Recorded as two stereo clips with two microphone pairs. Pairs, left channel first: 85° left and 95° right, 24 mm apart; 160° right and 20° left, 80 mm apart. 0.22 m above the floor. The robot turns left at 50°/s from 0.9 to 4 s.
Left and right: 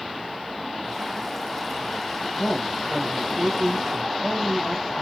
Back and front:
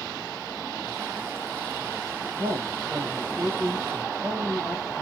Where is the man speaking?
45° left, 5.5 m; by 5.0 s 35° right, 5.5 m.